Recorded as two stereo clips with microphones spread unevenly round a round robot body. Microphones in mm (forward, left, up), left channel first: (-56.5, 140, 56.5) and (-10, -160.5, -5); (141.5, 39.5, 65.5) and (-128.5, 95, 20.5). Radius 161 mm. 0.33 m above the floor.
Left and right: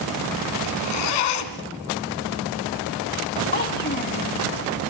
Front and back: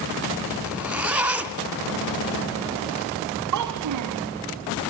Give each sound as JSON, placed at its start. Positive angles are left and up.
{"t": 0.6, "sound": "a zipper", "azimuth_deg": 85, "distance_m": 2.5}
{"t": 3.5, "sound": "a child speaking", "azimuth_deg": 160, "distance_m": 1.8}